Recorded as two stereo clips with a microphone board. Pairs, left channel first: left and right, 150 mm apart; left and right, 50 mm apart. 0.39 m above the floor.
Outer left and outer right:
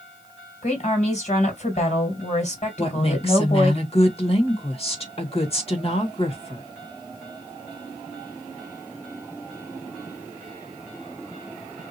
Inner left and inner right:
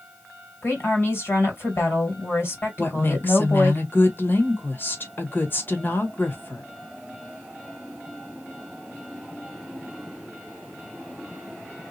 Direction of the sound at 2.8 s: 45° left (ahead or behind).